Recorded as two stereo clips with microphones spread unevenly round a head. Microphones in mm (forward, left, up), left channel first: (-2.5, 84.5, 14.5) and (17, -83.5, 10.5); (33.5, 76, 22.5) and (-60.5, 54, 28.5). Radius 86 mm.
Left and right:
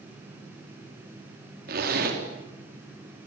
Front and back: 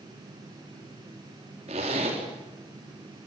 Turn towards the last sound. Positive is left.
turn(degrees=-120)